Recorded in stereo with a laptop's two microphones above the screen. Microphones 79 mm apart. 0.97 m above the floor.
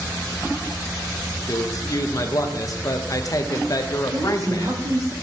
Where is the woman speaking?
45° right (ahead or behind), 0.7 m.